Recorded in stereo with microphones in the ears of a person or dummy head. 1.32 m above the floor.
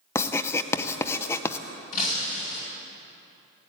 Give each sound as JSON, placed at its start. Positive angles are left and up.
{"t": 0.1, "sound": "writing", "side_deg": 10, "distance_m": 0.5}
{"t": 1.9, "sound": "breaking glass", "side_deg": 45, "distance_m": 3.5}